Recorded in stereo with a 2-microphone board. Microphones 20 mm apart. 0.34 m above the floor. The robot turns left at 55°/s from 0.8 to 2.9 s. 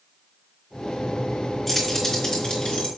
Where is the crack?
I don't hear a crack.